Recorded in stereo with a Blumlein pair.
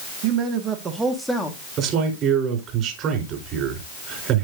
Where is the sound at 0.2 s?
45° right, 1.8 m; by 1.6 s 15° left, 1.5 m.